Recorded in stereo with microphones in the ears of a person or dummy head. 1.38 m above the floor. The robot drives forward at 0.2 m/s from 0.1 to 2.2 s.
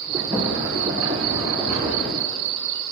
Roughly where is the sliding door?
Centre.